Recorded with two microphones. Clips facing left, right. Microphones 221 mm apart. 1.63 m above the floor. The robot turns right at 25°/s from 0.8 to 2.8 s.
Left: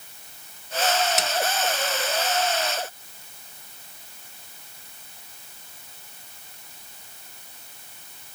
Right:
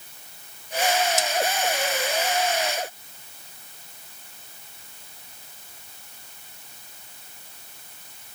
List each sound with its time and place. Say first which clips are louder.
1.2 s a snare drum: right 1 dB; 65° left (ahead or behind)